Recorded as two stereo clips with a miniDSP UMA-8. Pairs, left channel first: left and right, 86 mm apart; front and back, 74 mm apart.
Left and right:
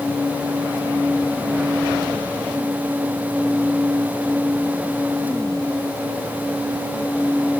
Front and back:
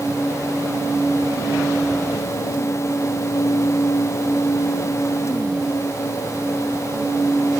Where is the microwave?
No microwave in this recording.